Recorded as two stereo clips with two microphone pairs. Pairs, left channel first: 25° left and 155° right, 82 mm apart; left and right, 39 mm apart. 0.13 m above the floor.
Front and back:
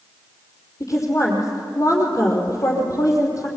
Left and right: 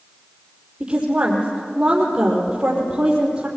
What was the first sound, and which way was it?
A woman speaking, 25° right.